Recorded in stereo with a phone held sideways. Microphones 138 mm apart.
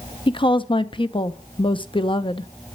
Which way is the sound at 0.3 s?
40° left (ahead or behind).